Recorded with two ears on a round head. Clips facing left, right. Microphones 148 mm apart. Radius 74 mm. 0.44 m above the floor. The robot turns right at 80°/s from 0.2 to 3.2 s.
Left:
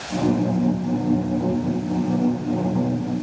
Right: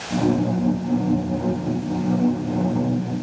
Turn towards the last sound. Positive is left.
No sound to turn to.